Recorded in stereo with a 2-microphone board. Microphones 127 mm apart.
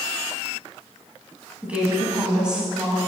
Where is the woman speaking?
10° right (ahead or behind), 1.8 m; by 3.0 s 5° right (ahead or behind), 1.4 m.